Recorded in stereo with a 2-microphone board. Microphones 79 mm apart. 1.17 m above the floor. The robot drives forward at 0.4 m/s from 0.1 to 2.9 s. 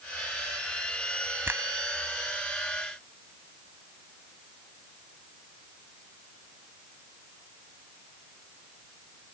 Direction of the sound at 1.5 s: 30° right (ahead or behind).